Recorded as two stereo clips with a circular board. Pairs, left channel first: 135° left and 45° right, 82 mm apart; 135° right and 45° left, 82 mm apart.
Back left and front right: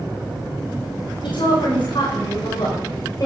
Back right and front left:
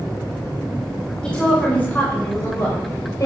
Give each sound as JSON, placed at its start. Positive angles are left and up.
{"t": 1.2, "sound": "a woman speaking", "azimuth_deg": 145, "distance_m": 4.5}